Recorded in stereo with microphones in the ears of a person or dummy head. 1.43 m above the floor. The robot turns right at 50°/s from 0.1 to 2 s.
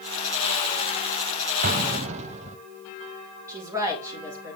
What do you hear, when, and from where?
1.6 s an explosion: 45° right (ahead or behind), 0.5 m; by 2.6 s 40° right (ahead or behind), 0.5 m
3.5 s a woman speaking: 15° right (ahead or behind), 1.8 m